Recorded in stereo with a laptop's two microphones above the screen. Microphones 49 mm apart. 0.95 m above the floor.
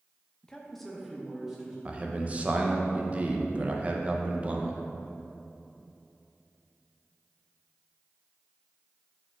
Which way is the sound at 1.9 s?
30° right (ahead or behind).